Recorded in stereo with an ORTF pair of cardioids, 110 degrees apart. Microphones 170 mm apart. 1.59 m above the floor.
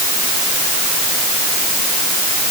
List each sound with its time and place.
Only background noise.